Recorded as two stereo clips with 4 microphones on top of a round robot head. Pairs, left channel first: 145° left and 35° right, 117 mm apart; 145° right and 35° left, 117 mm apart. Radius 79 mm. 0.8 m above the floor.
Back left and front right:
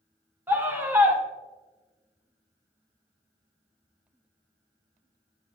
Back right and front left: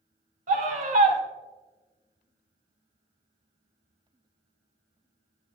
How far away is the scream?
About 3 m.